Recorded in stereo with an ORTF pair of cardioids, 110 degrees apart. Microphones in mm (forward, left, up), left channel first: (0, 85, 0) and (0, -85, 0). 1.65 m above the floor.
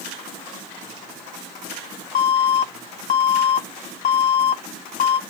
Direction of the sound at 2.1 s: 55° left.